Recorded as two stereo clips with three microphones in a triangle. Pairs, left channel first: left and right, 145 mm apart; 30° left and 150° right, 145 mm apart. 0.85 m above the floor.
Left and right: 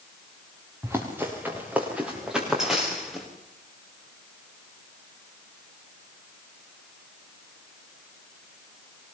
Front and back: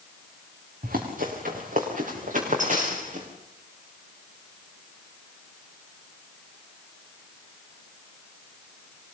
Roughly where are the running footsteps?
Behind.